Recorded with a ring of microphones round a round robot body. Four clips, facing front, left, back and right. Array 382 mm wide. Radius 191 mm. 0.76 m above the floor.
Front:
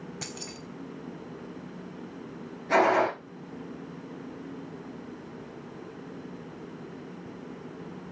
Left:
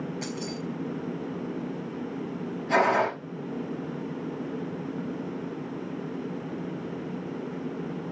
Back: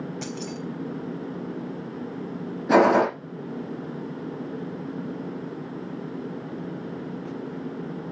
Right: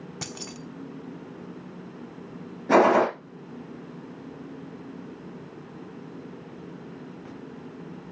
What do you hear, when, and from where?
0.2 s keys jangling: 90° right, 1.6 m
2.7 s a gunshot: 150° right, 7 m